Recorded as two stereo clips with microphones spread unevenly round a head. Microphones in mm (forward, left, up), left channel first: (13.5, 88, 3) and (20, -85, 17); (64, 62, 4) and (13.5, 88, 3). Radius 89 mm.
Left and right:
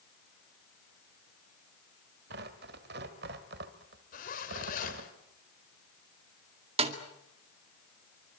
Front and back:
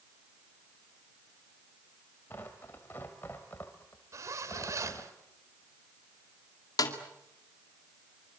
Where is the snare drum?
30° right, 2 m.